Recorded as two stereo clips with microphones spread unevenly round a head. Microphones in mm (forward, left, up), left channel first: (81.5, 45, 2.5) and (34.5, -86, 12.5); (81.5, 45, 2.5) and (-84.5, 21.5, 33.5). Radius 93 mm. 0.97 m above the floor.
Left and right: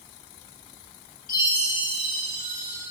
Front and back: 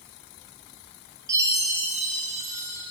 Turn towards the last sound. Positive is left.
turn(degrees=120)